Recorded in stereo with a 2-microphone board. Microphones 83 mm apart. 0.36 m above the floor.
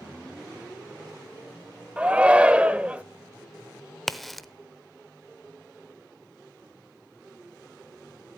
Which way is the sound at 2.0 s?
15° right (ahead or behind).